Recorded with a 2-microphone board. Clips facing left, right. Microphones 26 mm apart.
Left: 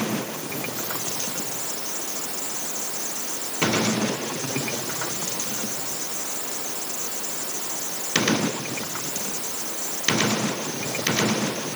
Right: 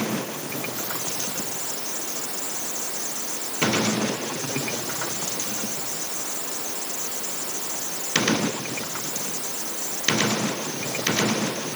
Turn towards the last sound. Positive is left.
No sound to turn to.